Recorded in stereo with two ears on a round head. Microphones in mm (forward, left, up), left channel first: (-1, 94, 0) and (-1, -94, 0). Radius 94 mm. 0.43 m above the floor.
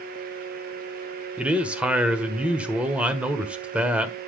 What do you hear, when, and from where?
1.4 s a man speaking: 5° right (ahead or behind), 1.3 m